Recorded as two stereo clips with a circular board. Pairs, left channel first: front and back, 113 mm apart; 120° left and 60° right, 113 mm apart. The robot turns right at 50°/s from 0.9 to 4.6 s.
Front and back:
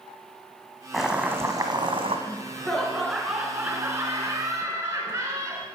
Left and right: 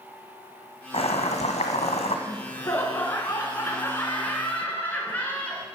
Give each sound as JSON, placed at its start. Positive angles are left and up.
{"t": 0.9, "sound": "boiling", "azimuth_deg": 90, "distance_m": 1.7}
{"t": 2.3, "sound": "laughter", "azimuth_deg": 60, "distance_m": 1.2}